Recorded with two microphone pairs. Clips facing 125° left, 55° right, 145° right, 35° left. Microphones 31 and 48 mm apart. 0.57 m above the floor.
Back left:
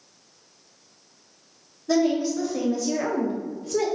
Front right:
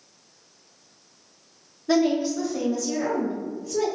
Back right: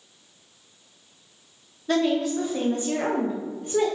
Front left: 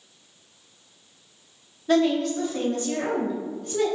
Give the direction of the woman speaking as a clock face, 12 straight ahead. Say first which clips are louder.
Even, front left 2 dB; 1 o'clock.